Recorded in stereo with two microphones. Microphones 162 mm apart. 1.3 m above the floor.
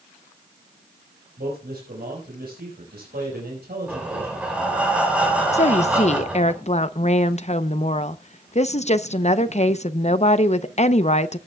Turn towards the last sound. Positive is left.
turn(degrees=45)  # may be behind; listen again after turning